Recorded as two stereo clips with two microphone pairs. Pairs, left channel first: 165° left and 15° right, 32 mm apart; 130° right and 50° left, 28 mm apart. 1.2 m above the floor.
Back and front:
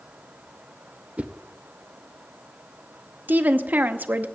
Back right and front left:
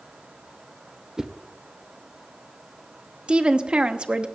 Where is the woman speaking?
5° right, 0.8 m.